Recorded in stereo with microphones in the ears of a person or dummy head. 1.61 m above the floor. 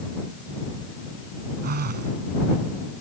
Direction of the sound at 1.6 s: 40° right (ahead or behind).